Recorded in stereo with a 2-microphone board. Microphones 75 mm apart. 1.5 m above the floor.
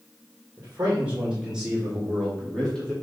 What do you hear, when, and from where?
0.6 s a man speaking: 30° right (ahead or behind), 2 m; by 2.9 s 15° left (ahead or behind), 2.5 m